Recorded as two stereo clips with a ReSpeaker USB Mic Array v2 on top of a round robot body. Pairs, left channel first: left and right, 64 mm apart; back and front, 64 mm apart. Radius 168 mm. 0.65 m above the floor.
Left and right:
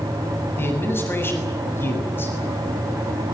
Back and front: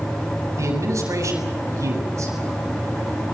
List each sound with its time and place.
0.6 s a man speaking: 40° left, 7 m